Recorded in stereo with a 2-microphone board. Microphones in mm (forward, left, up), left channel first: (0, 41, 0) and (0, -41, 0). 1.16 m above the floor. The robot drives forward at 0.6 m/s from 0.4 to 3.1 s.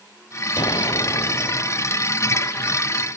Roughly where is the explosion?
Left.